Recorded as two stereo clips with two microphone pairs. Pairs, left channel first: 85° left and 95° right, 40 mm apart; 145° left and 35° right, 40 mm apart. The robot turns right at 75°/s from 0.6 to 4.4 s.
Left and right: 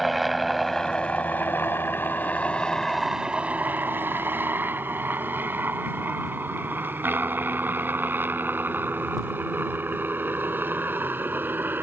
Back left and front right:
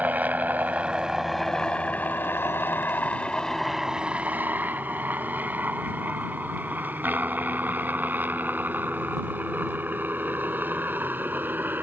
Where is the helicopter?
5° right; by 11.8 s 70° right.